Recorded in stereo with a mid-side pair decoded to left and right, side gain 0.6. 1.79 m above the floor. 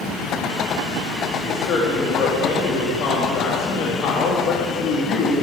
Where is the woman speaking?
60° left, 3 m.